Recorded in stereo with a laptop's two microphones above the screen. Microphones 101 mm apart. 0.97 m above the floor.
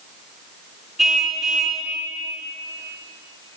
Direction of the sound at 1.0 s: 5° right (ahead or behind).